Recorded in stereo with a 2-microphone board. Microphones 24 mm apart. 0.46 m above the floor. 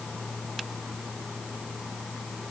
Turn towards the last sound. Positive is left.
No sound to turn to.